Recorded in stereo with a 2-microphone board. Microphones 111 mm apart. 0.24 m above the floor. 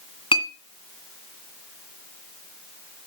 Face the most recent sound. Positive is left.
turn(degrees=50)  # may be behind; listen again after turning